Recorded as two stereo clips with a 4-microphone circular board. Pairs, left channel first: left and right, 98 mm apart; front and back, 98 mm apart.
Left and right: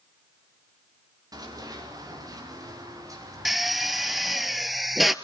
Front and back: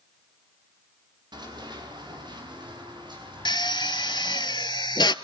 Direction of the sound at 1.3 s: 140° right.